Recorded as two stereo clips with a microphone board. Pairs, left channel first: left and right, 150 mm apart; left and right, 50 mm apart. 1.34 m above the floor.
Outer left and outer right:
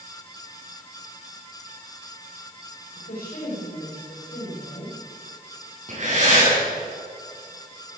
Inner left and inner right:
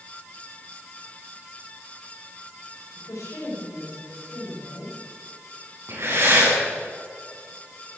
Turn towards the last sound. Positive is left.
turn(degrees=-50)  # may be behind; listen again after turning